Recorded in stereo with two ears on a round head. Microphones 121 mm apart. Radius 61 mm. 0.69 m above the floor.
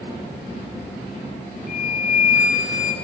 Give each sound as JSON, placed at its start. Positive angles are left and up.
{"t": 1.7, "sound": "a flute", "side_deg": 60, "distance_m": 2.0}